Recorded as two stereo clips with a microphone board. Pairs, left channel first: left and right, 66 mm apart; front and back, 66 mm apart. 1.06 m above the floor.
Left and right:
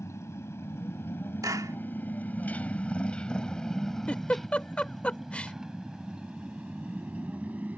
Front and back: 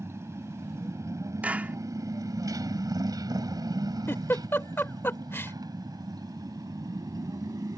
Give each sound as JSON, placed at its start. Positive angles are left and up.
{"t": 0.0, "sound": "a motorcycle", "azimuth_deg": 135}
{"t": 1.4, "sound": "a clap", "azimuth_deg": -115}
{"t": 4.1, "sound": "a giggle", "azimuth_deg": 30}